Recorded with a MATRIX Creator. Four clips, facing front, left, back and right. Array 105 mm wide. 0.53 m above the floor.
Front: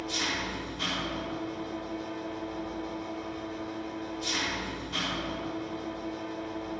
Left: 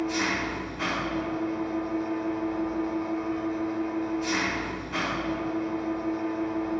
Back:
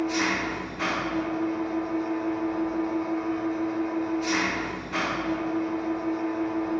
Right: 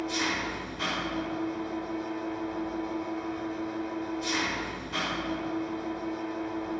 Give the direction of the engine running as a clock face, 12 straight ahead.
7 o'clock.